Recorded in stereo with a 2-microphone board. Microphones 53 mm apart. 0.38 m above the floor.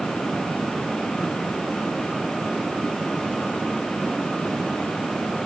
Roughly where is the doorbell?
I don't hear a doorbell.